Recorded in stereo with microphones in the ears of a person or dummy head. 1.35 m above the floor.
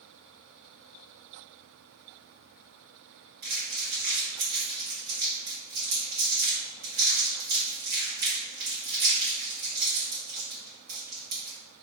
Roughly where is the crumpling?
Right.